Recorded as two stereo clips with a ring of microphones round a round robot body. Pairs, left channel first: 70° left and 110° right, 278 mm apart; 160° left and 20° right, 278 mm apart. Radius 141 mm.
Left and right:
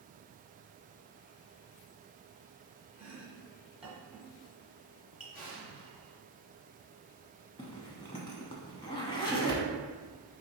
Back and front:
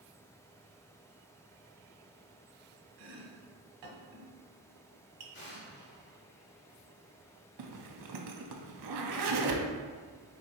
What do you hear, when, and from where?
3.0 s chopping: 25° right, 0.9 m
5.3 s an explosion: 120° left, 1.3 m
7.6 s a zipper: 5° right, 0.5 m